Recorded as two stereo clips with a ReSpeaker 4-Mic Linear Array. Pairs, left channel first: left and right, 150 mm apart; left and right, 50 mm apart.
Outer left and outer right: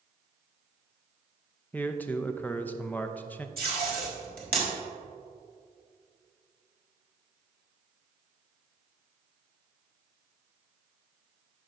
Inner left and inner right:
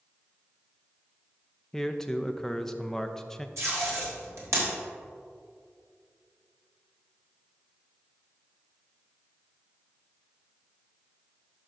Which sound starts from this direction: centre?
A man speaking, at 1.7 s.